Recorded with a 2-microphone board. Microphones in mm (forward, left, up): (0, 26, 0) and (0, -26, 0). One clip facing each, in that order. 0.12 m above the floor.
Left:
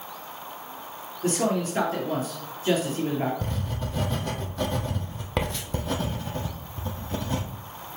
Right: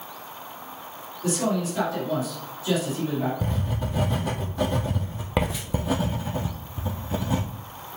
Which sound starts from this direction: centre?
Writing, at 3.4 s.